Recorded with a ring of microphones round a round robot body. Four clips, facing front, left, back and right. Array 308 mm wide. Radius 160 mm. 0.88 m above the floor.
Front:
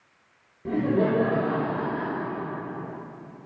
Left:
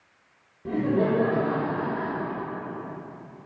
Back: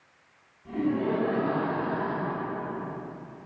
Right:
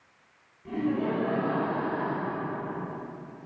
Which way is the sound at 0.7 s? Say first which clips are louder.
Left 5 dB, front 4 dB; 40° left.